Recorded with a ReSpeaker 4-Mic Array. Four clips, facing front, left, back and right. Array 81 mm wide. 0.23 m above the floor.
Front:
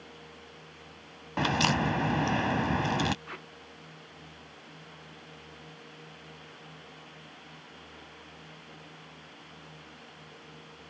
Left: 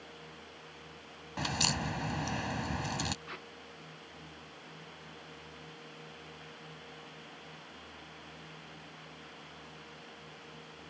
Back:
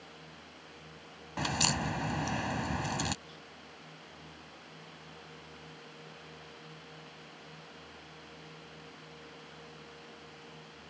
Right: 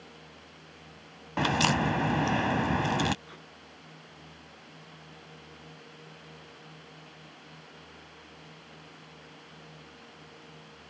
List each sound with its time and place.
1.4 s a crack: 55° right
3.2 s tape being pulled: 20° left